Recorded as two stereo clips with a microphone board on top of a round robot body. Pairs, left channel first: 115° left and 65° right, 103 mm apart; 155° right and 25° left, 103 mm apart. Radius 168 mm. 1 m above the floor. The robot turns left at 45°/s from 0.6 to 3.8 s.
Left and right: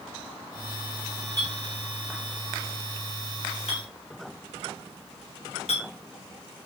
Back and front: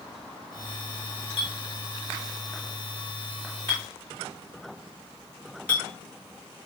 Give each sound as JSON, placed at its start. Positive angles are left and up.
{"t": 1.4, "sound": "a clink", "azimuth_deg": -125, "distance_m": 3.5}